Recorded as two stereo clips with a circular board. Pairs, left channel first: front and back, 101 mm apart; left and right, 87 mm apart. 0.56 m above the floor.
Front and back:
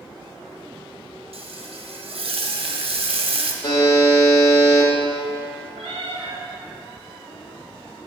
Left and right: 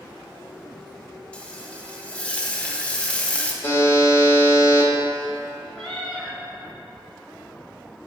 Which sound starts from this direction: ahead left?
A buzzer, at 3.6 s.